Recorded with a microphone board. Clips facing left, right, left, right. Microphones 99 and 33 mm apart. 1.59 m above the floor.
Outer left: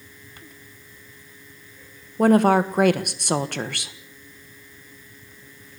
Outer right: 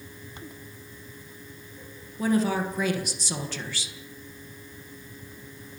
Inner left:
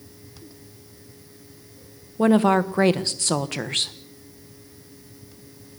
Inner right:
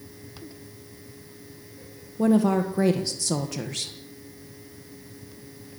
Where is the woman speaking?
60° left (ahead or behind), 1.5 m.